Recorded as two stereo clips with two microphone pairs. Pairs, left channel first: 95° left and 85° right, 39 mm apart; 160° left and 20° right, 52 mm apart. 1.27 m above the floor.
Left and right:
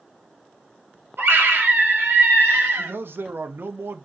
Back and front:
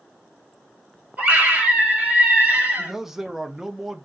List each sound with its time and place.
1.2 s a scream: 85° right, 2.5 m
2.8 s a man speaking: 105° right, 0.6 m